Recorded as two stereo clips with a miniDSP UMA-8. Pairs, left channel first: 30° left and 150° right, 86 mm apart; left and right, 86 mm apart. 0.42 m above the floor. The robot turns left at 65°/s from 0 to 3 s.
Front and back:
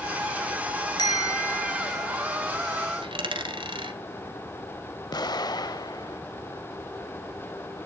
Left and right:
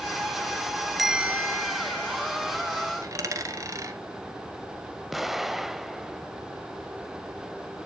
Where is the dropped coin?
145° right, 1.6 m.